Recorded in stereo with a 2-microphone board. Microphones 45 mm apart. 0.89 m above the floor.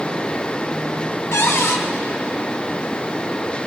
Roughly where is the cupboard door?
Left.